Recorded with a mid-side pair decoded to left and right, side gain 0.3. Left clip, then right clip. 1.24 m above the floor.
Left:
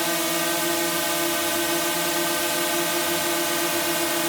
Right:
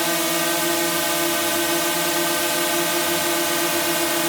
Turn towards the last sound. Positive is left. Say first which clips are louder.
# right 3 dB
turn(degrees=-20)